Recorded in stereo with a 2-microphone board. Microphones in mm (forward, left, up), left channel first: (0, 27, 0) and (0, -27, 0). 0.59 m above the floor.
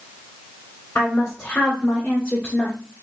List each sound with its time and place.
0.9 s a woman speaking: 55° left (ahead or behind), 2.5 m; by 2.8 s 35° left (ahead or behind), 1.5 m